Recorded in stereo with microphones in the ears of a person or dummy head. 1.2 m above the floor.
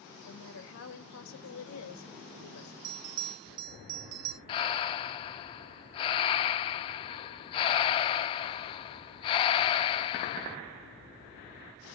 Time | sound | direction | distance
0.2 | a woman speaking | 70° left (ahead or behind) | 2 m
2.8 | a bell | 75° right (ahead or behind) | 1.8 m
4.5 | breathing | 25° left (ahead or behind) | 0.8 m